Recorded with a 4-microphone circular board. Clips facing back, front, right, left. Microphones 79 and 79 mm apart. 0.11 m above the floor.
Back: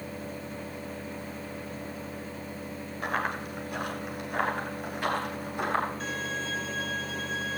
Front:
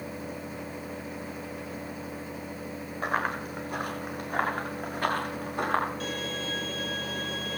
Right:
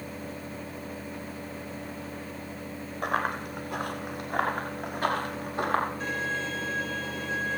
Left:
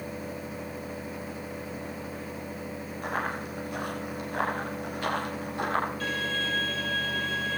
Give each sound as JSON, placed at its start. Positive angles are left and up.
{"t": 3.0, "sound": "running footsteps", "azimuth_deg": -55, "distance_m": 5.5}
{"t": 6.0, "sound": "a violin", "azimuth_deg": -25, "distance_m": 1.8}